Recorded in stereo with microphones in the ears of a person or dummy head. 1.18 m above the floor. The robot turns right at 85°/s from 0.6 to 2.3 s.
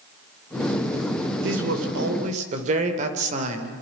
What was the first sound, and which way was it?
A man speaking, 115° right.